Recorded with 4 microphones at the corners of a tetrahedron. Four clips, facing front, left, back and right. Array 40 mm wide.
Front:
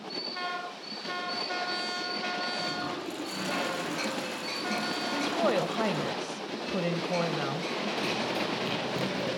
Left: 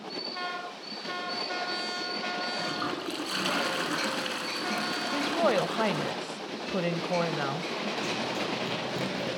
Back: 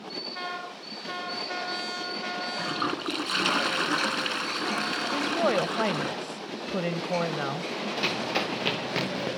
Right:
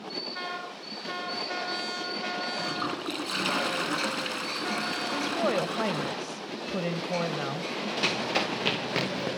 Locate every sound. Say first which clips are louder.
2.6 s a toilet flushing: right 1 dB, back 4 dB; straight behind, 3 m
5.1 s a woman speaking: left 2 dB, back 2 dB; 135° left, 1.2 m
8.0 s running footsteps: right 7 dB, back 5 dB; 125° right, 6 m; by 9.3 s 135° right, 6 m